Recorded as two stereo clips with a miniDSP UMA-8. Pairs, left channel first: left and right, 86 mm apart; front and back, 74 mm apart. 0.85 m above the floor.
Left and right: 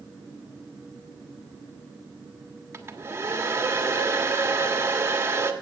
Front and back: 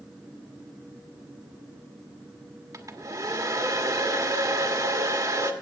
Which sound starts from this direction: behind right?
A hair dryer, at 2.7 s.